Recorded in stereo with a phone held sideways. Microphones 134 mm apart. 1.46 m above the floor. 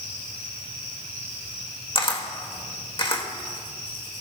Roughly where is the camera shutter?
Left.